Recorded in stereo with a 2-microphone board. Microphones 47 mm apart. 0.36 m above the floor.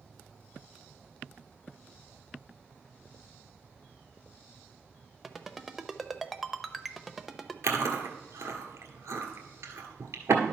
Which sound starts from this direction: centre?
A ringtone, at 5.2 s.